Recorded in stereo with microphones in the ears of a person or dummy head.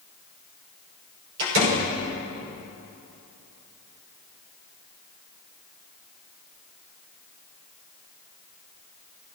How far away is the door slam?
About 6 m.